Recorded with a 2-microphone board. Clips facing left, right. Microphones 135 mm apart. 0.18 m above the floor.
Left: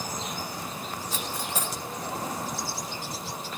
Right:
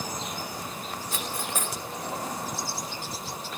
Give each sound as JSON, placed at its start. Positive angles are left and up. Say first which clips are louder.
{"t": 1.1, "sound": "cutlery clinking", "louder": "right 1 dB", "side_deg": -55, "distance_m": 1.5}